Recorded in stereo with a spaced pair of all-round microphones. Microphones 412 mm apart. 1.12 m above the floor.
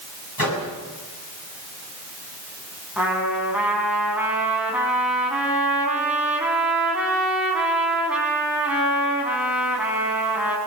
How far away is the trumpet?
About 5.5 m.